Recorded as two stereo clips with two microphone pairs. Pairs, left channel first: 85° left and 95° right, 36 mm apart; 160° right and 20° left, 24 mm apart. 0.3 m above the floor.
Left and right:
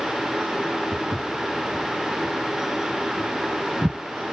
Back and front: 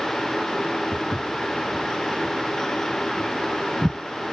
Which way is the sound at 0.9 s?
165° right.